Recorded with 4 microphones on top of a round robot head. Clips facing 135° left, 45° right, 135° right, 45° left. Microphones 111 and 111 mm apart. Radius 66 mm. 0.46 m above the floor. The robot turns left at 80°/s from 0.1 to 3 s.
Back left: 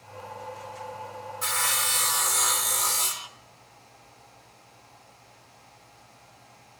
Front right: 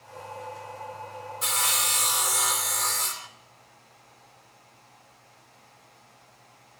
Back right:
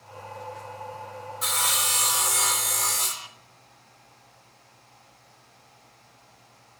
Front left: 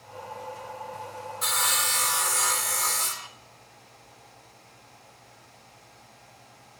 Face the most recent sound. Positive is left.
turn(degrees=-175)